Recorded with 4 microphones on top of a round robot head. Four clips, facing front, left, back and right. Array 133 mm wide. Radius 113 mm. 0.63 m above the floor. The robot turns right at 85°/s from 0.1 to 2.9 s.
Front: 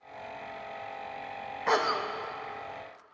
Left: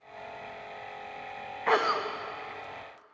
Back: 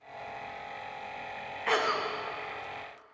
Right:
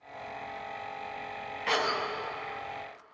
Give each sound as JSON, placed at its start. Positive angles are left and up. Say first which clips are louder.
{"t": 1.7, "sound": "a cough", "louder": "left 4 dB, front 1 dB", "azimuth_deg": 55, "distance_m": 0.6}